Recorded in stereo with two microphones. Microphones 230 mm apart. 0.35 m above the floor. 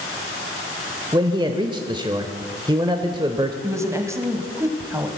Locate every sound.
1.1 s a man speaking: 20° right (ahead or behind), 1.0 m
3.6 s a woman speaking: 10° right (ahead or behind), 1.6 m